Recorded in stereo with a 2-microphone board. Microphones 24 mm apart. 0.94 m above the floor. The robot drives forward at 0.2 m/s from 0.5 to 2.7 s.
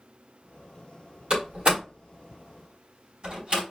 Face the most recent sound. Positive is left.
turn(degrees=-40)  # may be behind; listen again after turning